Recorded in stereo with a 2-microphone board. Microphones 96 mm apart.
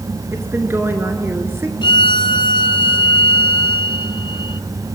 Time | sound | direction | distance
0.3 | a woman speaking | 25° right (ahead or behind) | 1.4 m
1.8 | a violin | 55° left (ahead or behind) | 0.6 m